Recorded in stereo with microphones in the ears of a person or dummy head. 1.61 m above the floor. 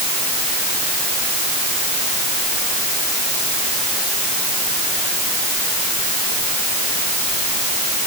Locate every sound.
Only background noise.